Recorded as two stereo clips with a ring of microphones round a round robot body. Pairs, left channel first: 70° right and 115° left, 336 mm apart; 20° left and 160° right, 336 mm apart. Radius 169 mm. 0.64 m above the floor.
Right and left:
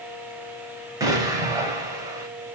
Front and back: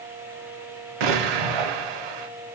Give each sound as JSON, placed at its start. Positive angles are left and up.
{"t": 1.0, "sound": "an explosion", "azimuth_deg": -165, "distance_m": 0.7}